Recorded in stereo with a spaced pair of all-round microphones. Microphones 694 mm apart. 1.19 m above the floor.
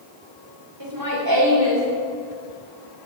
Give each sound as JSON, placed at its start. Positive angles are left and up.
{"t": 0.8, "sound": "laughter", "side_deg": -30, "distance_m": 2.5}